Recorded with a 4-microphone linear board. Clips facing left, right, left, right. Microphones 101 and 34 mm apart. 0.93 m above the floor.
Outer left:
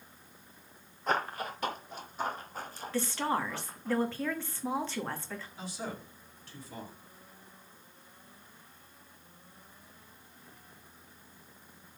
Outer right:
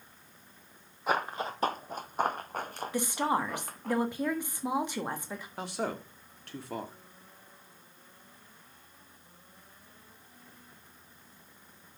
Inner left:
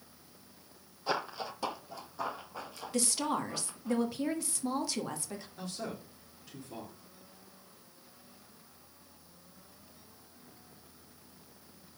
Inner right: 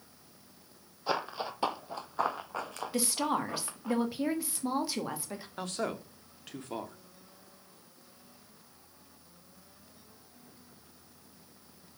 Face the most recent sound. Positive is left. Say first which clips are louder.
# outer right 8 dB, inner right 7 dB
turn(degrees=-70)  # may be behind; listen again after turning